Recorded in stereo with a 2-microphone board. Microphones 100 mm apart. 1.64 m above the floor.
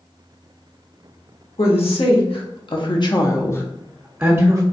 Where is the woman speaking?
70° left (ahead or behind), 1.4 m; by 4.6 s 30° right (ahead or behind), 0.7 m.